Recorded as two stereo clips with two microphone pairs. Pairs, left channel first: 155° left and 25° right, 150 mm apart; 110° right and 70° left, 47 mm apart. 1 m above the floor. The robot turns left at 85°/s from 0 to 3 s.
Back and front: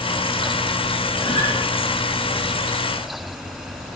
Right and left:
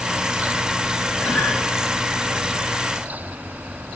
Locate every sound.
1.2 s a guitar: 140° right, 5.5 m; by 1.6 s 170° right, 5.5 m